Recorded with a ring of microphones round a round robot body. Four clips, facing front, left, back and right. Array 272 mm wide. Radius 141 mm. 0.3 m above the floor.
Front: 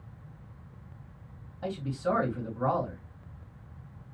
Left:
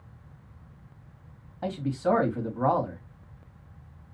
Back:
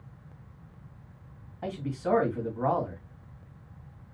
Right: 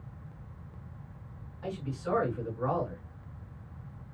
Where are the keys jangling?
No keys jangling in this recording.